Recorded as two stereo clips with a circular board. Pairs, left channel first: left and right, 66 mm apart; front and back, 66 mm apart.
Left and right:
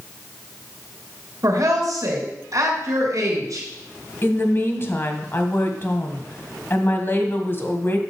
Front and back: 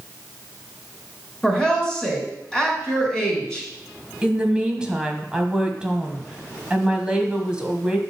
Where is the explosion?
No explosion in this recording.